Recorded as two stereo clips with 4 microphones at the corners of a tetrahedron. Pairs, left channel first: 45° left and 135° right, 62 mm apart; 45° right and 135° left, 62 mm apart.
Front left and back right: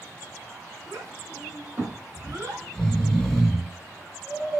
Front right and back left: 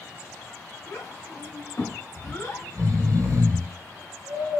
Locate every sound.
0.9 s a child speaking: 90° right, 3 m
2.2 s snoring: 125° left, 1.8 m